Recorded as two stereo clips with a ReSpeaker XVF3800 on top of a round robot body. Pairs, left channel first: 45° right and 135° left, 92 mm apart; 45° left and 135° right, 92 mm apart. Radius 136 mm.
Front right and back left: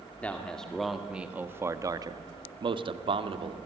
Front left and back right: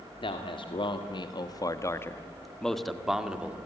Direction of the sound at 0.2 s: 30° left.